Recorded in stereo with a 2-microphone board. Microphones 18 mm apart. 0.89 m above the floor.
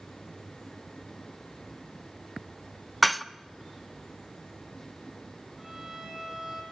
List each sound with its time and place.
3.0 s dishes clattering: centre (ahead or behind), 0.8 m
5.6 s a violin: 25° right (ahead or behind), 7 m